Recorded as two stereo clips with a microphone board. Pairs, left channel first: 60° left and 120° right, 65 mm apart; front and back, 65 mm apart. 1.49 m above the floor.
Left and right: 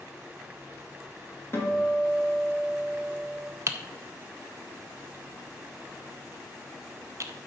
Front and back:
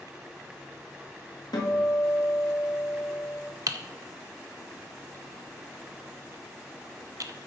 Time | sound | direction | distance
1.5 | a guitar | 10° left | 2.5 m
3.7 | typing on a keyboard | 160° right | 0.6 m